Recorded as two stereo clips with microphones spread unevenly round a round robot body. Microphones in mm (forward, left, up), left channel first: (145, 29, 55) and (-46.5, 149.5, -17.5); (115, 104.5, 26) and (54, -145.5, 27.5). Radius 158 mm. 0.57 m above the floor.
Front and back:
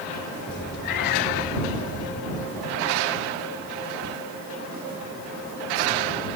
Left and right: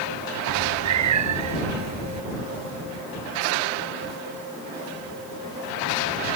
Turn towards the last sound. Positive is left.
turn(degrees=-90)